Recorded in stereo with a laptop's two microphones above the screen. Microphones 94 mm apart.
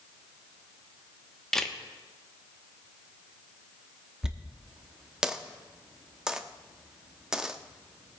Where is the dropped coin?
10° right (ahead or behind), 0.7 m.